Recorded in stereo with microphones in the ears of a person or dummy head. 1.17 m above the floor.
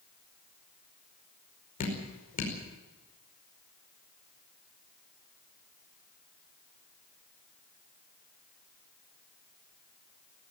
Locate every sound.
1.8 s dripping: 40° left (ahead or behind), 5 m